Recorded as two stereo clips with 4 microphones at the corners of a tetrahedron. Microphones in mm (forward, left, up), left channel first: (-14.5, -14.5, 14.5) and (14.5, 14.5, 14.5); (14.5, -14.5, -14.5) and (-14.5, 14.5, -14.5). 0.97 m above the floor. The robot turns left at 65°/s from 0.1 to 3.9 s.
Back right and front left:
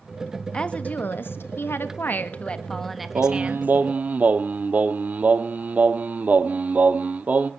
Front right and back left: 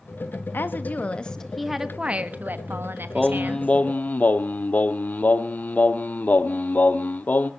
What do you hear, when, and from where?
0.5 s a woman speaking: 65° right, 1.3 m; by 3.7 s 85° left, 1.3 m
3.1 s singing: 45° left, 0.9 m; by 7.5 s 5° right, 0.9 m